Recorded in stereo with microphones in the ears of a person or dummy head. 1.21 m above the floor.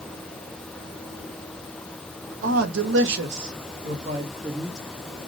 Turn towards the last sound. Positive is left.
turn(degrees=-30)  # may be behind; listen again after turning